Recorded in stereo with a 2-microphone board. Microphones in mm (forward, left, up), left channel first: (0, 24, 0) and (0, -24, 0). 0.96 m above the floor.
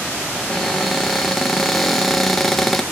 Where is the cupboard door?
Centre (ahead or behind), 0.7 m.